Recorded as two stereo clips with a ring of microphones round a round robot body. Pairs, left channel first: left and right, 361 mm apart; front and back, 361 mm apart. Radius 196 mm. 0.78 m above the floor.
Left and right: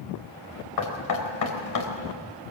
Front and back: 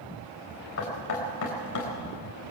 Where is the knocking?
55° left, 3.5 m.